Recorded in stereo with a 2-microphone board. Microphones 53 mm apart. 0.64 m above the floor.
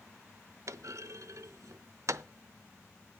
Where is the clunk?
70° right (ahead or behind), 0.6 m.